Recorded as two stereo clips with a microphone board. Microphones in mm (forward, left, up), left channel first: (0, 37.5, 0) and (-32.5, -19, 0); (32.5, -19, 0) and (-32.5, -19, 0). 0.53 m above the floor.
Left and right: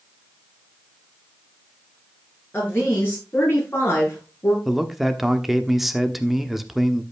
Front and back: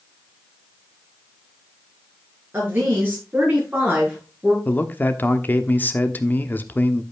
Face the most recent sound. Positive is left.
turn(degrees=-35)